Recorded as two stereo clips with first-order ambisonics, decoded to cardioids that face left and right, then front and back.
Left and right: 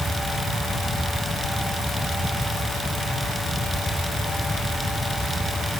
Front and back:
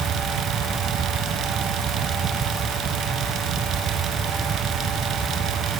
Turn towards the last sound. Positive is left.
No sound to turn to.